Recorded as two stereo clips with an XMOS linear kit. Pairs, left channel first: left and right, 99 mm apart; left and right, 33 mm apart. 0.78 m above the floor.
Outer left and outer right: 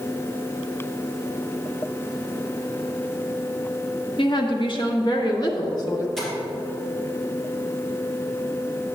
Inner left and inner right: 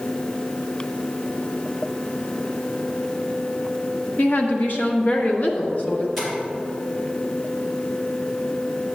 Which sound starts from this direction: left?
A woman speaking, at 4.2 s.